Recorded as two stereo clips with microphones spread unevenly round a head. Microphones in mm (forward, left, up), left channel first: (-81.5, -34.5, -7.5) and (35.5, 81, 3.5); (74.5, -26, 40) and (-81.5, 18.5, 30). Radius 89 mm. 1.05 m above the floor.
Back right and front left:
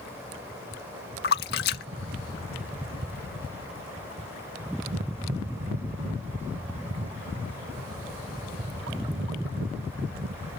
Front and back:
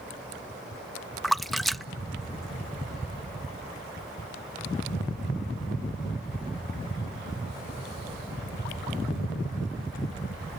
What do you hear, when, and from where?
1.2 s a splash: 105° right